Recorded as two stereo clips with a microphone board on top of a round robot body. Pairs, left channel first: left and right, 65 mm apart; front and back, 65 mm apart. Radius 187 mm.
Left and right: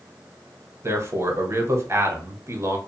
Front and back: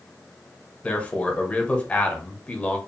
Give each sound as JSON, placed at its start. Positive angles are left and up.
{"t": 0.8, "sound": "a man speaking", "azimuth_deg": -60, "distance_m": 1.1}